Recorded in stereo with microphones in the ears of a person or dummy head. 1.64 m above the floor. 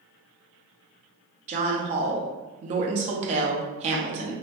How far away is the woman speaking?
About 0.7 m.